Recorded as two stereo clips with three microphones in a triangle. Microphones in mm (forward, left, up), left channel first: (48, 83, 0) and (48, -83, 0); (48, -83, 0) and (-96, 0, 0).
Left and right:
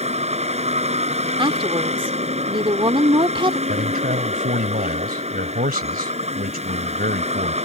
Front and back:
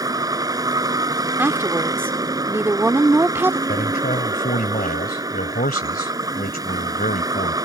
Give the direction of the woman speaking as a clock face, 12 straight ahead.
5 o'clock.